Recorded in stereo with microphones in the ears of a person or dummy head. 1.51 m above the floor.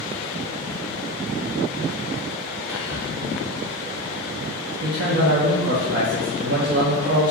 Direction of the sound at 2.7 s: 10° right (ahead or behind).